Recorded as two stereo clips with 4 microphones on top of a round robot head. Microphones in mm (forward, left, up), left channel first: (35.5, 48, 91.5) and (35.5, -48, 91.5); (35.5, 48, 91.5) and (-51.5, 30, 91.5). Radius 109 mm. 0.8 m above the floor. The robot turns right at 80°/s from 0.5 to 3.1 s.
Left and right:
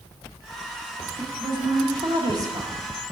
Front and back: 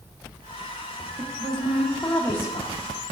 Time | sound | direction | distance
1.2 | a woman speaking | 145° right | 1.4 m